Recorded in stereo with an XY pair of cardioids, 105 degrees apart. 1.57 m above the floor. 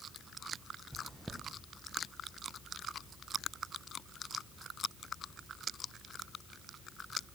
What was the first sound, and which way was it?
Chewing, 5° right.